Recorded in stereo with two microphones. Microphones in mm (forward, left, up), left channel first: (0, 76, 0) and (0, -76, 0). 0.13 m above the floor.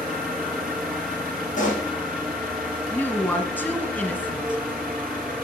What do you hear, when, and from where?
0.0 s an engine running: 5° right (ahead or behind), 7.5 m
1.6 s a pop: 65° left (ahead or behind), 5 m
2.9 s a woman speaking: 10° left (ahead or behind), 2.0 m